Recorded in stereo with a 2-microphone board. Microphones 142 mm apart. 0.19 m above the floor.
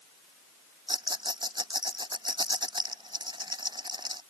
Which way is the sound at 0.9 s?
30° right (ahead or behind).